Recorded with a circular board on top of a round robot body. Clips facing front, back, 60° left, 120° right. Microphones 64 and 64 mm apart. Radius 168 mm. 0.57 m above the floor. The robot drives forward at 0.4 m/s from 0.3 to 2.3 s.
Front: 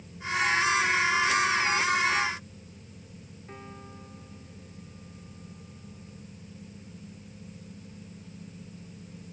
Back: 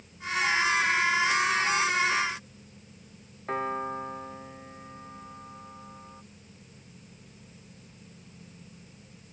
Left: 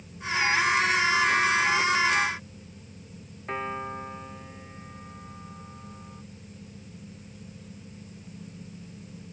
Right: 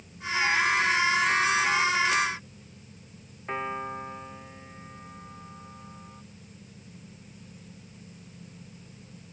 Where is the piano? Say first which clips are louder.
Back 16 dB, even; 155° left.